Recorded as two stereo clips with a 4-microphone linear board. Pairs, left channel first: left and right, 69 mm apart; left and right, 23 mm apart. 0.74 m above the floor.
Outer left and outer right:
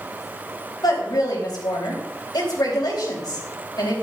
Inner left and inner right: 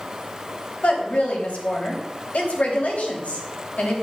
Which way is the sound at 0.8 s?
75° left (ahead or behind).